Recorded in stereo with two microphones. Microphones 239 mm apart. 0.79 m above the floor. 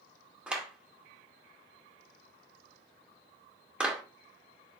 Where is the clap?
5° right (ahead or behind), 2 m.